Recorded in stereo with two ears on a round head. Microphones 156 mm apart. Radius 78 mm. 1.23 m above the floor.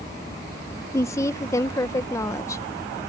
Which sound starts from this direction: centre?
A woman speaking, at 0.9 s.